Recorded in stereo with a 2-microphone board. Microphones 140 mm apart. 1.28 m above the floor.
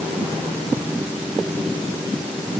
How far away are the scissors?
No scissors in this recording.